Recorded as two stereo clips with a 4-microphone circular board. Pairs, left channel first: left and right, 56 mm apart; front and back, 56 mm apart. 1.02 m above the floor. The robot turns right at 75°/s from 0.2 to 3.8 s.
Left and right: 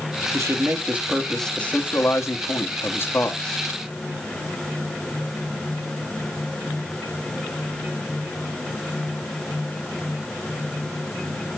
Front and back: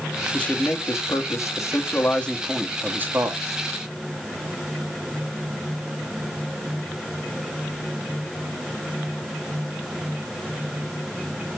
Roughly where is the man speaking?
Right.